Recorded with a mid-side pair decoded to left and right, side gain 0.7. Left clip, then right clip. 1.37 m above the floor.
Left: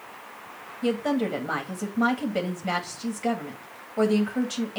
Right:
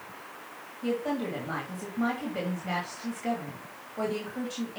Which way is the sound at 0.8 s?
40° left.